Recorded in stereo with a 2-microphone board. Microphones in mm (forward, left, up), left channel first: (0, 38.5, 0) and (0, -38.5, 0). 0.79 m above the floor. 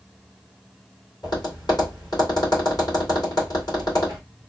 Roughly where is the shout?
No shout in this recording.